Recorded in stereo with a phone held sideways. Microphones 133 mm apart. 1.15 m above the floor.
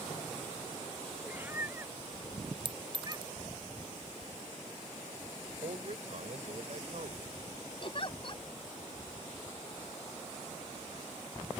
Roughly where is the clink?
Right.